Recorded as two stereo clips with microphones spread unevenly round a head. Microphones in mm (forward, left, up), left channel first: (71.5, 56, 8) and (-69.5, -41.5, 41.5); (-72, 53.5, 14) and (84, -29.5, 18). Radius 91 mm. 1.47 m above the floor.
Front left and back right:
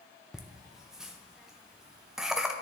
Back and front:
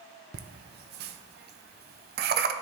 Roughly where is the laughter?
Ahead right.